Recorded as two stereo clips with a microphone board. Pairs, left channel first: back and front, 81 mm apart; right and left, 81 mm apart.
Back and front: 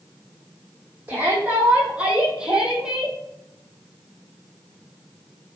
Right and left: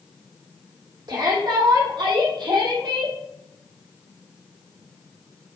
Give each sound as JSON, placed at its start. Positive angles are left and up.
{"t": 1.1, "sound": "a shout", "azimuth_deg": 65, "distance_m": 6.0}